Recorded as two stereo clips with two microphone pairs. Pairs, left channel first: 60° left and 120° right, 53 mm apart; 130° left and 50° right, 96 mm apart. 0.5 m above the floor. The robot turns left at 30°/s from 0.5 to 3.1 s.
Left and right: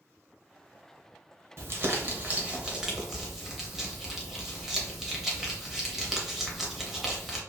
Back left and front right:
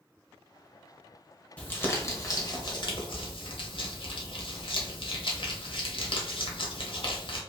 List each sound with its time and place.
1.6 s crumpling: 155° right, 0.7 m; by 7.4 s 155° left, 0.7 m